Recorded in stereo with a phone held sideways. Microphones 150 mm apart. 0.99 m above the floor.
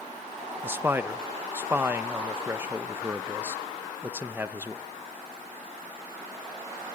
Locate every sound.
0.6 s a man speaking: 15° right (ahead or behind), 0.7 m